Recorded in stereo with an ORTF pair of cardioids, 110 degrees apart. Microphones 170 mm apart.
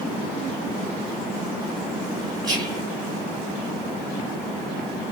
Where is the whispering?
5° left, 0.9 m.